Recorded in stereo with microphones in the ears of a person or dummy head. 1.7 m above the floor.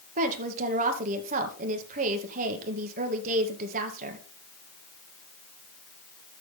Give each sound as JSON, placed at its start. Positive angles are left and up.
{"t": 0.2, "sound": "a woman speaking", "side_deg": -45, "distance_m": 2.0}